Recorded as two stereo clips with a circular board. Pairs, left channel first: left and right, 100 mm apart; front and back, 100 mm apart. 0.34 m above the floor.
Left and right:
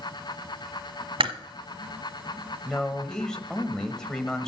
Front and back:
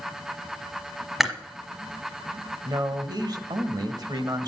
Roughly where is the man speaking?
Behind.